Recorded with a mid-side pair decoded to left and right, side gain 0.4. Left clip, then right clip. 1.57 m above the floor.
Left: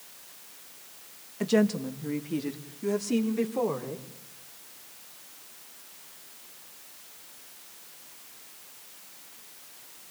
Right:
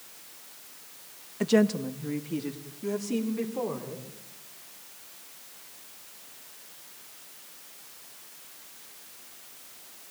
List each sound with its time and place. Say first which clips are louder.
1.4 s a woman speaking: right 1 dB; 15° right, 1.9 m; by 4.1 s 40° left, 5 m